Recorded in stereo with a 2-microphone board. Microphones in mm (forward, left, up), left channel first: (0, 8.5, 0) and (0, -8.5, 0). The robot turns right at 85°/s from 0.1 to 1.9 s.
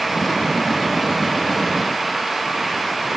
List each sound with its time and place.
Only background noise.